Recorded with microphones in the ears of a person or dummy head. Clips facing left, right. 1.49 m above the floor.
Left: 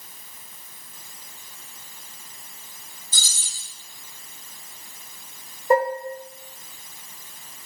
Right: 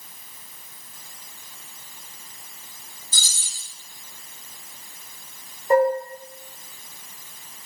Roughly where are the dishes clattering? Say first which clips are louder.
Right 2 dB; left.